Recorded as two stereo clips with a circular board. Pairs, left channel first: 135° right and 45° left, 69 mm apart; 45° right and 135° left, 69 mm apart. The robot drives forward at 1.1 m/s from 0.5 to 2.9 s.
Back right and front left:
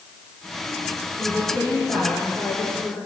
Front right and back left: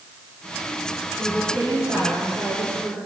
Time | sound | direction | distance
1.2 | a woman speaking | 175° right | 9.5 m